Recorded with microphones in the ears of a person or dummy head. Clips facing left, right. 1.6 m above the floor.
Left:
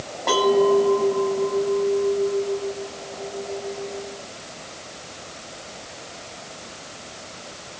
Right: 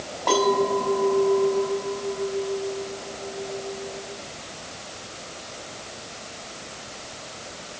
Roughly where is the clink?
Centre.